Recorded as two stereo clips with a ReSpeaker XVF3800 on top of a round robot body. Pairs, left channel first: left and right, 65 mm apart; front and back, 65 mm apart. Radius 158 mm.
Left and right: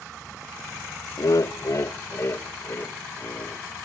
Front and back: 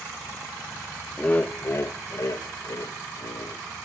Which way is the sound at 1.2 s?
70° left.